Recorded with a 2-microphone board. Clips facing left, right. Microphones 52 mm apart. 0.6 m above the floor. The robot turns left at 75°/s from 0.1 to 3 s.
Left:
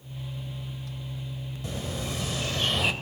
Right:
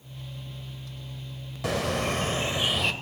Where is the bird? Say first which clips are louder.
Right 8 dB; 95° right, 1.5 m; by 2.9 s 170° left, 1.5 m.